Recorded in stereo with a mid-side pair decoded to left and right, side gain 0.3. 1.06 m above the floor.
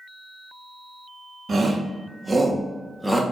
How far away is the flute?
I don't hear a flute.